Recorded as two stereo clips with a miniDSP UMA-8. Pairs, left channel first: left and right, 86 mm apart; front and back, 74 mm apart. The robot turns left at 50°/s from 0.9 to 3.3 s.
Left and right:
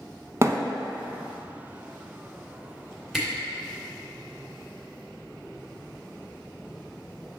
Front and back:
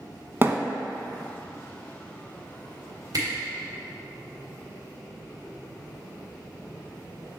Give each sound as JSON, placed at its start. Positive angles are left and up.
{"t": 0.4, "sound": "a thud", "azimuth_deg": -130, "distance_m": 0.6}
{"t": 3.1, "sound": "a camera shutter", "azimuth_deg": -175, "distance_m": 2.0}